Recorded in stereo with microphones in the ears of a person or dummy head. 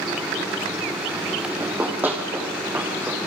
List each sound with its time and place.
1.6 s running footsteps: 10° right (ahead or behind), 3 m